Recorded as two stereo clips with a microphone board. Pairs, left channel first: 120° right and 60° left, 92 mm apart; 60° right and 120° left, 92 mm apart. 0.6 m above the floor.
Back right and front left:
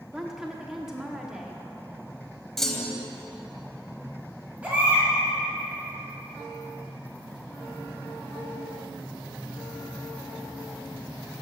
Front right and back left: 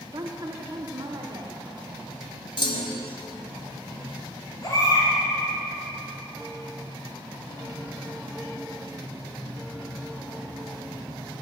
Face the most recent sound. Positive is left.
turn(degrees=-15)